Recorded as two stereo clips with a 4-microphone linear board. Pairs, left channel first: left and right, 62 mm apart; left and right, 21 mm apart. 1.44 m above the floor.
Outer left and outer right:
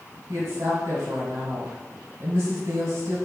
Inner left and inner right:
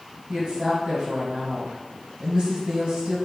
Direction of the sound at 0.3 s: 50° right (ahead or behind).